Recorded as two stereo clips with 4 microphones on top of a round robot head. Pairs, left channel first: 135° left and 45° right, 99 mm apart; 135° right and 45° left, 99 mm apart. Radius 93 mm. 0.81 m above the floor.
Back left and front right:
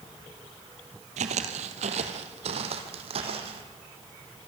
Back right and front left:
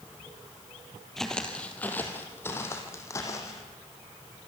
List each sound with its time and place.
1.2 s footsteps: 50° right, 1.7 m; by 3.6 s 75° right, 3 m